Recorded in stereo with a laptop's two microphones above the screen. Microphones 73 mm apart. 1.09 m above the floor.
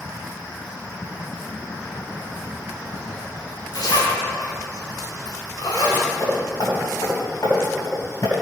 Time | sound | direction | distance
3.7 | a zipper | 60° left (ahead or behind) | 3.5 m
6.2 | hammering | 60° left (ahead or behind) | 5.5 m